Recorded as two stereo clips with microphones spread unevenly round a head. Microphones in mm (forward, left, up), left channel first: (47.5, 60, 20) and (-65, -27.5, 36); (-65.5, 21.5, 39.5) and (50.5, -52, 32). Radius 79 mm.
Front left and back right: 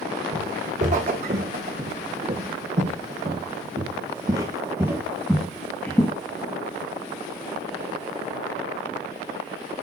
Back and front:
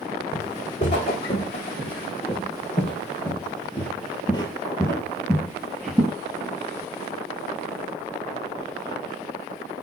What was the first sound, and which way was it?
Footsteps, 170° right.